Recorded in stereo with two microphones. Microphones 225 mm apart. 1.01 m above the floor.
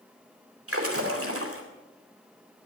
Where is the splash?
80° right, 2.5 m.